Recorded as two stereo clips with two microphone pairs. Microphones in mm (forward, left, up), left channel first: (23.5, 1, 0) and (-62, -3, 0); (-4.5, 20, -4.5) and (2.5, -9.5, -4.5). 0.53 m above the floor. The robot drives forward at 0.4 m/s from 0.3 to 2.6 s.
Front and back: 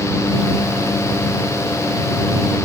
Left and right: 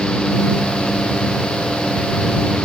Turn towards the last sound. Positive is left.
No sound to turn to.